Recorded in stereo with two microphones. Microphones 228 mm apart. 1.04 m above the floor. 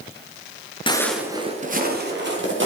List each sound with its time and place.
0.9 s footsteps: 20° left (ahead or behind), 1.1 m; by 2.7 s 55° right (ahead or behind), 2.5 m